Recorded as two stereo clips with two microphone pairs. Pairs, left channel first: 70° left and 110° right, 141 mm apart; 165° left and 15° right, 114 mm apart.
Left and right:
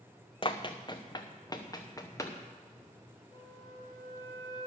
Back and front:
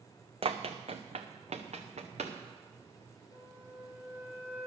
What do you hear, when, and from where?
0.4 s running footsteps: 20° left, 1.0 m; by 2.4 s 5° left, 2.0 m
3.3 s a flute: 40° left, 1.6 m